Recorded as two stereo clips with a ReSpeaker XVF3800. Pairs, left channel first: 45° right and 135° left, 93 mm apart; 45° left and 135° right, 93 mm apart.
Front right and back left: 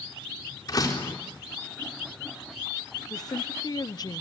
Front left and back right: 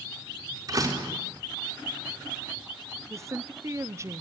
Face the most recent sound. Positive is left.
turn(degrees=-80)